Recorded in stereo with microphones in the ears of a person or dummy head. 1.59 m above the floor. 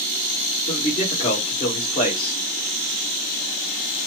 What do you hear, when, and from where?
0.7 s a man speaking: 35° left (ahead or behind), 2 m